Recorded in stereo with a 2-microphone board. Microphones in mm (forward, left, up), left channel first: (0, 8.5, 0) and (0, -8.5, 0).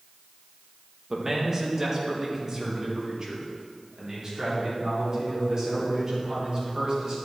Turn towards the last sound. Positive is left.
turn(degrees=-35)  # may be behind; listen again after turning